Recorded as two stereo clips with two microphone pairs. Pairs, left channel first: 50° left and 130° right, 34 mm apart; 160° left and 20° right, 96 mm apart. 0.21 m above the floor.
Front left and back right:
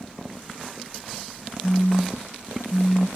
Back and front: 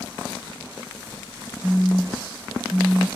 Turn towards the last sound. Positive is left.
turn(degrees=85)